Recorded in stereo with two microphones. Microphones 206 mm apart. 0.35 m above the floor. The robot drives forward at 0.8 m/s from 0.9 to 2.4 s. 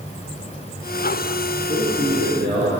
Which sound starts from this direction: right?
A man speaking, at 1.7 s.